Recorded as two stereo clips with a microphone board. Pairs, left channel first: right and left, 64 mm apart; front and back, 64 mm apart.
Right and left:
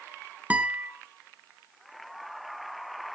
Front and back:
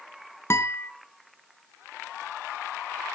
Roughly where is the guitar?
Ahead left.